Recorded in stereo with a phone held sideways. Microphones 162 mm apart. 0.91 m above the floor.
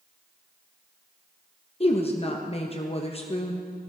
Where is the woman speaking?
40° left (ahead or behind), 1.0 m.